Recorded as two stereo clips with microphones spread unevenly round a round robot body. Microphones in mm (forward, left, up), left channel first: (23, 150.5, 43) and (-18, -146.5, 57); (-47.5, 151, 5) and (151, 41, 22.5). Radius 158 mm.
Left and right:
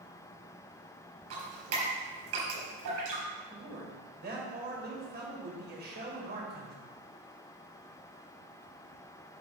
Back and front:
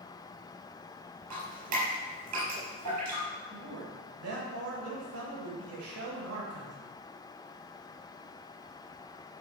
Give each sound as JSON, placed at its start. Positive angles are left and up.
{"t": 1.3, "sound": "dripping", "azimuth_deg": -55, "distance_m": 4.5}
{"t": 3.5, "sound": "a man speaking", "azimuth_deg": -40, "distance_m": 3.0}